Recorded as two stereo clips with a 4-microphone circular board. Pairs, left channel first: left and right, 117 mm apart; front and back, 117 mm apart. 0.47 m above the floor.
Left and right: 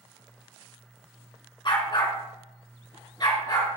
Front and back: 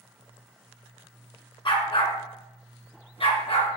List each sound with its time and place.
1.6 s a dog barking: 45° left, 2.0 m; by 3.7 s 35° left, 3 m